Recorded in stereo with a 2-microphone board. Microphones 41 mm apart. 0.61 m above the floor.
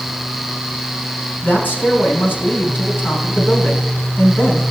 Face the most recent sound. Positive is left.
turn(degrees=50)  # may be behind; listen again after turning